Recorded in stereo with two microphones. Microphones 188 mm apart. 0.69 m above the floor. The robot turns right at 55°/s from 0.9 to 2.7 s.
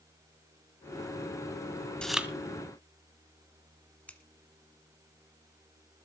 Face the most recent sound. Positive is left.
turn(degrees=10)  # may be behind; listen again after turning